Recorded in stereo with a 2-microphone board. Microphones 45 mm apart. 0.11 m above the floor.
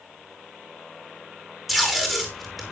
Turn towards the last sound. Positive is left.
turn(degrees=-5)  # may be behind; listen again after turning